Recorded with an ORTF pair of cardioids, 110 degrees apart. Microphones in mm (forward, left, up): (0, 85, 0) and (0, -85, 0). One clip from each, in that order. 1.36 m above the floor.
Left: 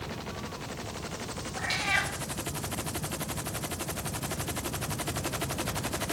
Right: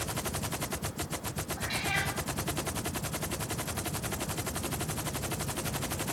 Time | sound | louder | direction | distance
1.6 | a cat meowing | left 4 dB | 50° left | 2 m